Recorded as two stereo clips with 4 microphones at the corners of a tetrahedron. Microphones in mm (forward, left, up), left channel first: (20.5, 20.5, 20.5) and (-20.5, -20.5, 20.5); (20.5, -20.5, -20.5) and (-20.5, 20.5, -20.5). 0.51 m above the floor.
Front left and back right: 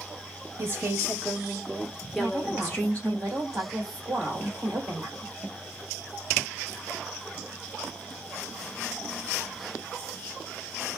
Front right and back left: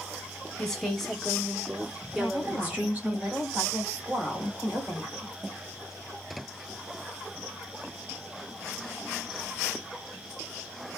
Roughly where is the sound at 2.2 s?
Behind right.